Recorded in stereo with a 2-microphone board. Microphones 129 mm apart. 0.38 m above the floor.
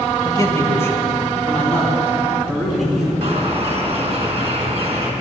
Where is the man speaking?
30° left (ahead or behind), 1.6 m; by 3.1 s centre (ahead or behind), 4 m.